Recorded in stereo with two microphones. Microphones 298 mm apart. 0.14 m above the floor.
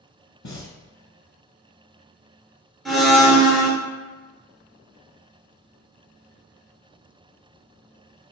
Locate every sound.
0.4 s breathing: 65° left (ahead or behind), 0.5 m
2.9 s a blender: centre (ahead or behind), 0.9 m